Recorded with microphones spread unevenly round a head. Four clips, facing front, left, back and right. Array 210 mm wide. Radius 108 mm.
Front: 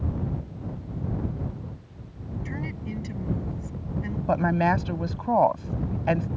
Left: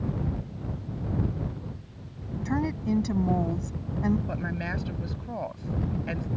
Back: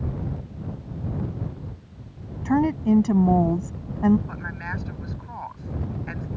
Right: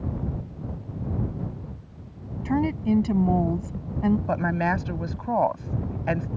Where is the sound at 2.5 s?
165° right.